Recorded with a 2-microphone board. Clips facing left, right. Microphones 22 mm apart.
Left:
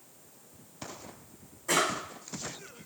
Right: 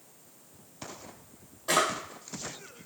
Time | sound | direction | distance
1.7 | a drawer | 50° right (ahead or behind) | 1.8 m